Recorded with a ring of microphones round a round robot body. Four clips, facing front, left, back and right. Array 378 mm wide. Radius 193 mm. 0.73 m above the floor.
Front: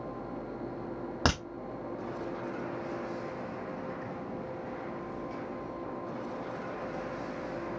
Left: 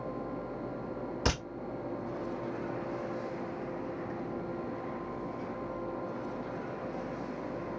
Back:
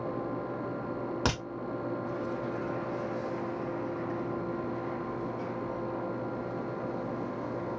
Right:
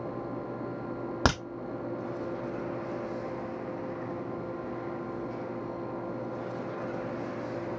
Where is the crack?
80° right, 1.6 m.